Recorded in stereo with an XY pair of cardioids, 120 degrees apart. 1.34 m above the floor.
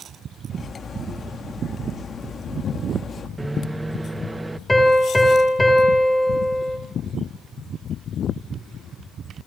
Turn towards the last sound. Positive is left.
turn(degrees=5)